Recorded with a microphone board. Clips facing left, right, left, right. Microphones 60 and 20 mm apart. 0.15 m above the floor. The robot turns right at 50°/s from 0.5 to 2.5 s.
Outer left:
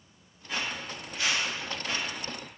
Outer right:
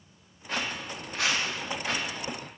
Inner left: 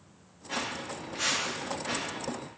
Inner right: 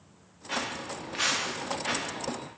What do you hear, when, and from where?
0.5 s footsteps: 55° right (ahead or behind), 1.2 m; by 2.1 s 80° right, 0.8 m